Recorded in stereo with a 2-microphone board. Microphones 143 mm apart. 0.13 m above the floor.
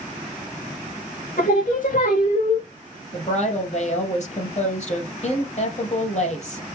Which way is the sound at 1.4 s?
65° left (ahead or behind).